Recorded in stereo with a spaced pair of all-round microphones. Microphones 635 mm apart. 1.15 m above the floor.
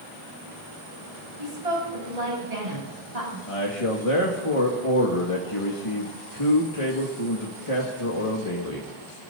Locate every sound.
1.4 s a woman speaking: 70° right (ahead or behind), 8.5 m; by 3.4 s 80° right, 9.5 m
3.5 s a man speaking: 55° left (ahead or behind), 2 m